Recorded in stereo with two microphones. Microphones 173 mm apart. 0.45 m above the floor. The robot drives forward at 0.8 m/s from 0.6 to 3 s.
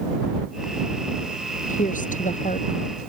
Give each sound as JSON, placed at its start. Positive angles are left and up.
{"t": 1.7, "sound": "a woman speaking", "side_deg": 45}